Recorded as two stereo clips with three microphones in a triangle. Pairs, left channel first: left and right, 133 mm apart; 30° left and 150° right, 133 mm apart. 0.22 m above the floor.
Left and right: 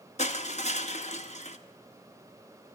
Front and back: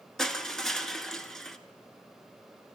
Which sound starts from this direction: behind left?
Crushing, at 0.2 s.